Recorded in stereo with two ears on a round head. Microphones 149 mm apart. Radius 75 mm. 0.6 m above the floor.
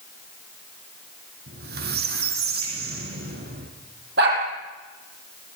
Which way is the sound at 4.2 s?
65° right (ahead or behind).